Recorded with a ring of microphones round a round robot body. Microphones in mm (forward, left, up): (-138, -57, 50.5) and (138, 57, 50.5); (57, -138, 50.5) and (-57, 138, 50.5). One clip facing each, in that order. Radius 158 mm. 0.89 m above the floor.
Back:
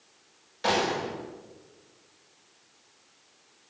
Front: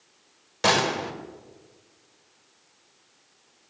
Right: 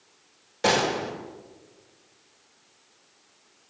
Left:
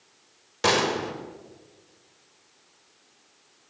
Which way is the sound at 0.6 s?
40° left.